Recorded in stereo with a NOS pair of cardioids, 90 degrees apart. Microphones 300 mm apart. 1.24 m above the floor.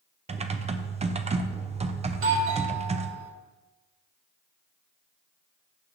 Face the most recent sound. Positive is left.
turn(degrees=-45)